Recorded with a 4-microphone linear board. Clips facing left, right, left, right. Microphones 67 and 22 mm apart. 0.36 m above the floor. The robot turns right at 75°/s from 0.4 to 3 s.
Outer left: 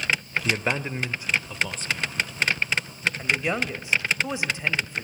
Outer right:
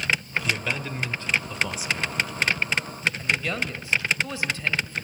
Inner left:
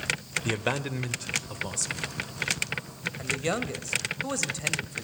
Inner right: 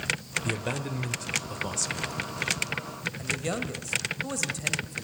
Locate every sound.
0.5 s a man speaking: 100° left, 1.0 m; by 2.2 s 130° right, 1.0 m
3.2 s a man speaking: 20° left (ahead or behind), 1.4 m